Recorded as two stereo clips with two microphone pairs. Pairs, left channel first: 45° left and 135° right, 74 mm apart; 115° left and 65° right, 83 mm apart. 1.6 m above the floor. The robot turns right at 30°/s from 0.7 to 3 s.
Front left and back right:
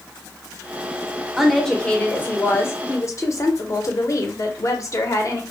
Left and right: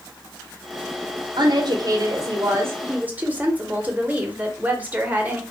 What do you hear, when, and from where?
1.4 s a woman speaking: 45° right, 0.6 m; by 5.4 s 5° left, 0.6 m